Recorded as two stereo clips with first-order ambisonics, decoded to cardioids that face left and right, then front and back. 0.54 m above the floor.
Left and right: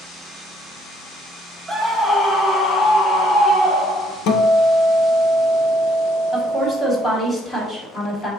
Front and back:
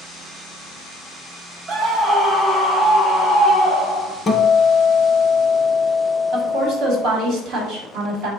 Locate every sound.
1.7 s a scream: 155° right, 1.0 m; by 4.2 s 65° left, 2.5 m
4.3 s a guitar: 75° left, 0.6 m
6.3 s a woman speaking: 160° left, 1.5 m